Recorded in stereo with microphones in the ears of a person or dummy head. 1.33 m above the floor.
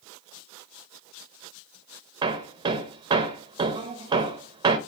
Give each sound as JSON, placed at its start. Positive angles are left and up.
{"t": 2.2, "sound": "hammering", "side_deg": -25, "distance_m": 0.7}